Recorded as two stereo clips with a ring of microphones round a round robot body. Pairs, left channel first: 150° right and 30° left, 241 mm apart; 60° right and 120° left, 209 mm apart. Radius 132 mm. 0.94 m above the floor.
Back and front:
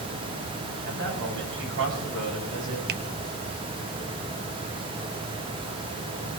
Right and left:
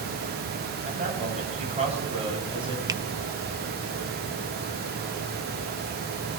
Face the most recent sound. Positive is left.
turn(degrees=55)